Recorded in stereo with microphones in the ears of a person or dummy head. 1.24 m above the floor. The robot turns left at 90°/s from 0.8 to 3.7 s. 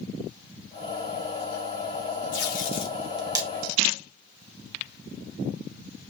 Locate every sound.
2.3 s tape being pulled: 70° left (ahead or behind), 2.5 m; by 3.5 s 30° right (ahead or behind), 2.5 m